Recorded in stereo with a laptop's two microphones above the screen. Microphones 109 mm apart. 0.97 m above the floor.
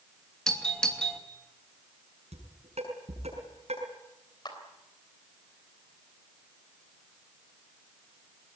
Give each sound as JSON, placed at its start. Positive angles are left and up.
{"t": 0.5, "sound": "a doorbell", "side_deg": 5, "distance_m": 2.5}
{"t": 2.3, "sound": "dishes clattering", "side_deg": -75, "distance_m": 7.0}
{"t": 4.5, "sound": "a clap", "side_deg": 40, "distance_m": 3.5}